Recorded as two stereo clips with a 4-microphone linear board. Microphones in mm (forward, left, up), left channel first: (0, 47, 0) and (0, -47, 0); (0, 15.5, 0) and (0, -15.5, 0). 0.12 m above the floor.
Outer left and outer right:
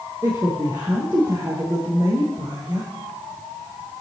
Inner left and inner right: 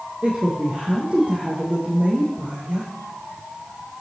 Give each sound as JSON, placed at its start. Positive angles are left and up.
{"t": 0.2, "sound": "a woman speaking", "side_deg": -30, "distance_m": 3.5}